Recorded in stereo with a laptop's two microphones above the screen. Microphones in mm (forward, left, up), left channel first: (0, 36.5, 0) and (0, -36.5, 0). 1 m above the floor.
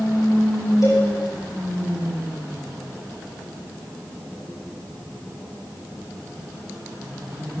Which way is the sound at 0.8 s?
50° left (ahead or behind).